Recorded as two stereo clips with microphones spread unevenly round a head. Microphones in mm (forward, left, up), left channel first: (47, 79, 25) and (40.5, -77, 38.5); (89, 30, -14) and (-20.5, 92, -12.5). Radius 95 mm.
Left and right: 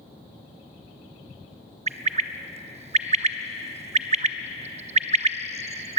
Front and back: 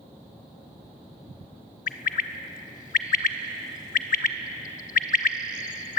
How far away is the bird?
About 0.8 m.